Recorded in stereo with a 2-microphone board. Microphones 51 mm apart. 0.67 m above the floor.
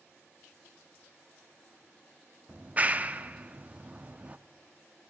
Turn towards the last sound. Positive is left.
turn(degrees=-30)  # may be behind; listen again after turning